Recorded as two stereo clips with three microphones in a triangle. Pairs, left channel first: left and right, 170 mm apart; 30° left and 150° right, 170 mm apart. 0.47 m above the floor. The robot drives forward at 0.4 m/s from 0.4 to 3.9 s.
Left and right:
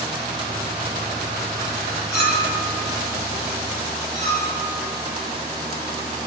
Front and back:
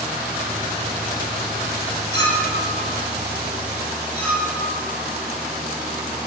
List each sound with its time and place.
2.1 s a clink: 95° left, 2 m; by 4.5 s 115° left, 2.5 m